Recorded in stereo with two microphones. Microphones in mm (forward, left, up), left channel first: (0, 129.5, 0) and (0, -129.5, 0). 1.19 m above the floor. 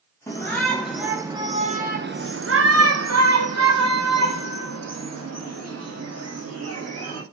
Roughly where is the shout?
Centre.